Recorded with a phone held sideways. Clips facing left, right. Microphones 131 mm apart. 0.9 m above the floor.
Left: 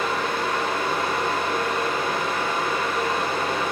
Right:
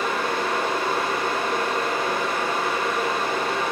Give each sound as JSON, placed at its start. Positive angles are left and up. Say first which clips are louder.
{"t": 0.0, "sound": "a fan", "louder": "even", "side_deg": -35, "distance_m": 1.3}